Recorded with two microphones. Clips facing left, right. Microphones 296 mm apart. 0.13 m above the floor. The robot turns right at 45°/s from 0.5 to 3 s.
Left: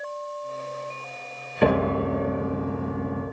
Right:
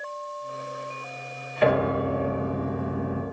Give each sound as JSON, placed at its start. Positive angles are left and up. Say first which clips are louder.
{"t": 1.6, "sound": "a piano", "louder": "left 1 dB", "azimuth_deg": 125, "distance_m": 1.2}